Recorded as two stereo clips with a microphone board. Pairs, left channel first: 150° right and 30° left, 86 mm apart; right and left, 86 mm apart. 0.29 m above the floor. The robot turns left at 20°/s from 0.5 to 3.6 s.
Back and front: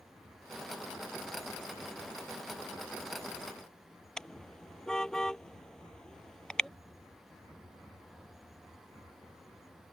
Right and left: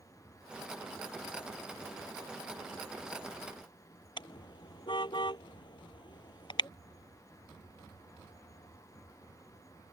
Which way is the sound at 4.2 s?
65° right.